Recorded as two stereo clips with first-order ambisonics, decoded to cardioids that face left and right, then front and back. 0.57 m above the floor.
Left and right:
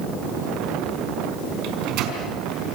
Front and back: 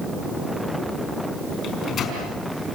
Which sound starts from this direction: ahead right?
A microwave, at 1.6 s.